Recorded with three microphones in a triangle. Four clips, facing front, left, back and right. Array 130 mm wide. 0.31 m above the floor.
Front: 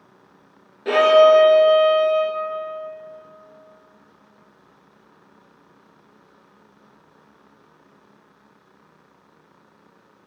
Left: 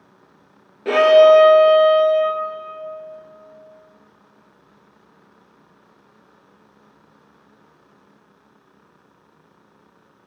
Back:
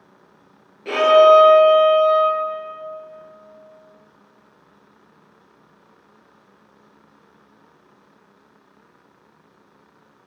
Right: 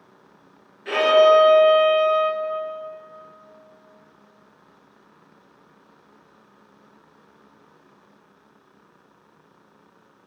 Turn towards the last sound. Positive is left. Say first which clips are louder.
# left 5 dB, back 1 dB
turn(degrees=75)